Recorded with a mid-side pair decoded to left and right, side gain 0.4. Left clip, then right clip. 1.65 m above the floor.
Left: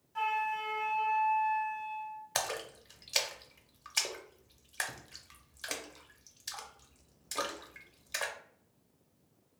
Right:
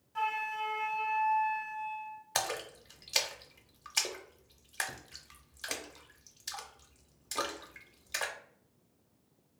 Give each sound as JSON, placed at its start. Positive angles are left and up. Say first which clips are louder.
{"t": 0.1, "sound": "a flute", "louder": "left 1 dB", "azimuth_deg": -15, "distance_m": 0.7}
{"t": 2.4, "sound": "a splash", "louder": "right 1 dB", "azimuth_deg": -5, "distance_m": 0.5}